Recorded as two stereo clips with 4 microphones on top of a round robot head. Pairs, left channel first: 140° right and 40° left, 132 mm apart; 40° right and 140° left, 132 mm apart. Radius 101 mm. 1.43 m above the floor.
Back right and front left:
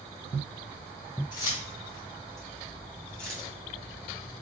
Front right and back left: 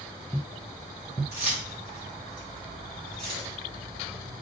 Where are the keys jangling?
165° left, 3 m; by 3.5 s 140° left, 2.5 m.